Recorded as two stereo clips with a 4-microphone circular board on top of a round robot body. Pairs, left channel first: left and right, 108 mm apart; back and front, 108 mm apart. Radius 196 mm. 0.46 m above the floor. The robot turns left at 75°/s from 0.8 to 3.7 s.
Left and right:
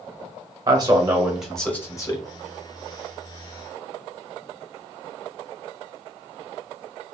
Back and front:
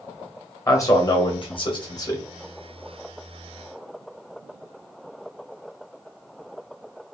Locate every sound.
0.7 s a man speaking: 130° right, 1.4 m; by 2.2 s 125° left, 1.4 m